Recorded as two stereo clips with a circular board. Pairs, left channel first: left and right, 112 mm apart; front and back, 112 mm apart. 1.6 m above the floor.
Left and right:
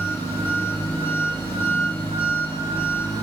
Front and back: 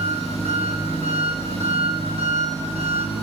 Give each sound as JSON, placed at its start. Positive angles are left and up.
{"t": 0.0, "sound": "an engine running", "azimuth_deg": 160, "distance_m": 2.0}